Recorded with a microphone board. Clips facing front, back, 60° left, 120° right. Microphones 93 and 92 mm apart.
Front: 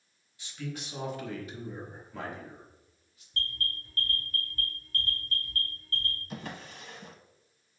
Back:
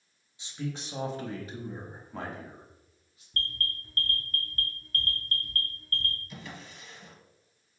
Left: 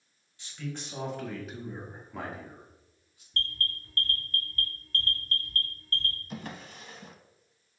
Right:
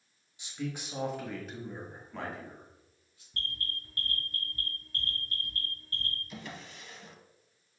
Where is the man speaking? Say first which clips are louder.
Back 3 dB, right 2 dB; 160° right, 0.9 m; by 3.2 s 130° left, 2 m.